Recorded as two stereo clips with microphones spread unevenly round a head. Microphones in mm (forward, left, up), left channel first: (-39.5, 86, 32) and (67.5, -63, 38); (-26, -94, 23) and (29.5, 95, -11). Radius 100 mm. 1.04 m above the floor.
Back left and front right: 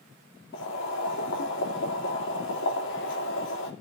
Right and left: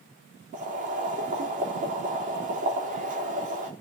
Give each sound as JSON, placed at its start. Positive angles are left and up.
{"t": 0.5, "sound": "boiling", "azimuth_deg": 125, "distance_m": 3.0}